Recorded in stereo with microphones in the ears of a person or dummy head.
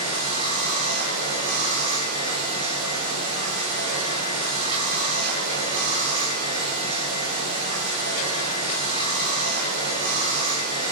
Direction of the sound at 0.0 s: 70° right (ahead or behind).